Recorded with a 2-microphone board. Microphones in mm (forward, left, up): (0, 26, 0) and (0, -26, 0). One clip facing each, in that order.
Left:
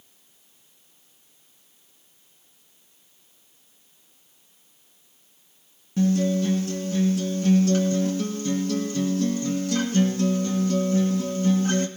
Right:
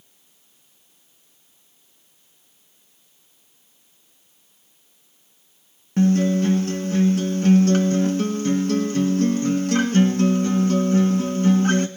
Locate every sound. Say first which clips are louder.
6.0 s a guitar: right 4 dB; 60° right (ahead or behind), 1.8 m